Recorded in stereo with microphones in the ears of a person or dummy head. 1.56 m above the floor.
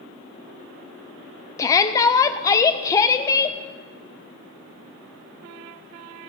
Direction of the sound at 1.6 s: 25° left (ahead or behind).